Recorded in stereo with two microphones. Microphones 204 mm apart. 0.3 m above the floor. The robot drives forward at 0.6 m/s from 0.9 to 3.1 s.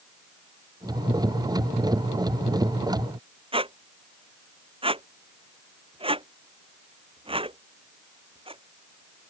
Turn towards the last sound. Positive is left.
turn(degrees=-25)  # may be behind; listen again after turning